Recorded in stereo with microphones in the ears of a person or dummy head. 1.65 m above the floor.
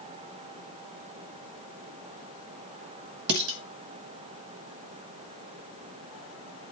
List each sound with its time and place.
3.3 s dishes clattering: 65° right (ahead or behind), 1.5 m